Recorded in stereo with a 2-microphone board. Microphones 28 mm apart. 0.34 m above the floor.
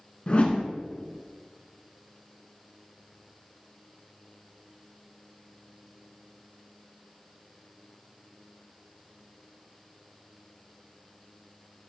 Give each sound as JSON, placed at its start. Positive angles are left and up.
{"t": 0.3, "sound": "a whoosh", "side_deg": 40, "distance_m": 1.1}